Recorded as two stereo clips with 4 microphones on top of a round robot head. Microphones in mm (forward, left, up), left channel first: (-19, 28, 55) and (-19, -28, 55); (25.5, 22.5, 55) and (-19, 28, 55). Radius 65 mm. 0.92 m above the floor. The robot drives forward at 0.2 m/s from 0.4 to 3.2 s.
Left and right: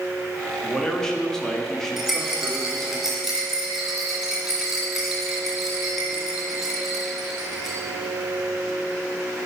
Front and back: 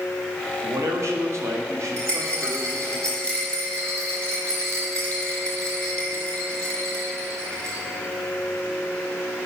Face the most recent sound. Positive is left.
turn(degrees=-170)